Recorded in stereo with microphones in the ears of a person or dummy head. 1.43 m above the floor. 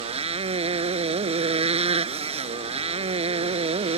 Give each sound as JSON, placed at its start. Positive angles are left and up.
{"t": 0.0, "sound": "a motorcycle", "side_deg": -35}